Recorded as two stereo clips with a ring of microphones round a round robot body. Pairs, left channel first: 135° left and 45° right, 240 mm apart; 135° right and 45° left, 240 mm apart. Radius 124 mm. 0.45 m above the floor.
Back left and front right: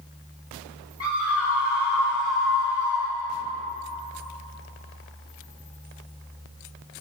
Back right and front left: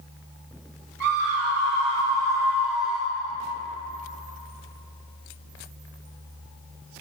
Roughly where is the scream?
Ahead left.